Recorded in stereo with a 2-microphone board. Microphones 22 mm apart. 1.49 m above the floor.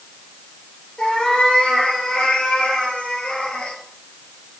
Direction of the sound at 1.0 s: 35° left (ahead or behind).